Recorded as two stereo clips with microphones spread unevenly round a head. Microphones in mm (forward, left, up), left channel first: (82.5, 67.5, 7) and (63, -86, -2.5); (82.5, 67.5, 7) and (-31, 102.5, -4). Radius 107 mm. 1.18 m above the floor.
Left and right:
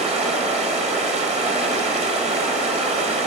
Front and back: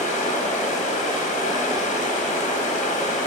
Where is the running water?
50° right, 1.1 m.